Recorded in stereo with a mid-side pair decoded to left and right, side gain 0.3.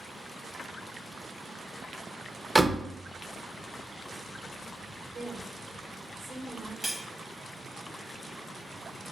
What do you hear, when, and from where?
2.5 s a door slam: 25° right, 0.6 m
5.1 s a woman speaking: 60° right, 1.2 m
6.8 s cutlery clinking: 5° right, 0.7 m